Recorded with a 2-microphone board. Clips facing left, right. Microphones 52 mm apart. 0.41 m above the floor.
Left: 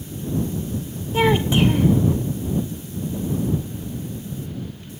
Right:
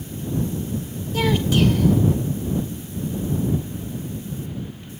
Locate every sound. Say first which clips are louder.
1.1 s a child speaking: left 2 dB; 25° left (ahead or behind)